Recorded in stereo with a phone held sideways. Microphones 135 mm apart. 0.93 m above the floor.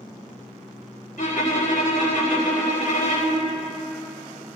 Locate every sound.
1.2 s a violin: 80° left, 5 m